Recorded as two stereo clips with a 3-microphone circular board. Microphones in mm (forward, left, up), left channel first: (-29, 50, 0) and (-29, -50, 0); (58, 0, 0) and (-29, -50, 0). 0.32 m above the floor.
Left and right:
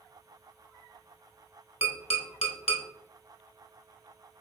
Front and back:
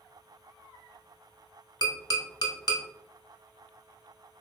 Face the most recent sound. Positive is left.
turn(degrees=75)